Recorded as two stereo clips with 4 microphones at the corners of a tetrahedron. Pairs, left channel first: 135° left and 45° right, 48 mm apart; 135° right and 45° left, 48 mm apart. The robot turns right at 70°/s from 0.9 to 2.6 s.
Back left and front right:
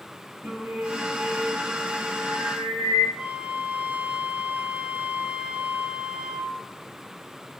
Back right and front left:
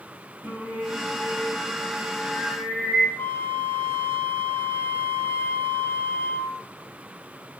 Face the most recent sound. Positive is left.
turn(degrees=-110)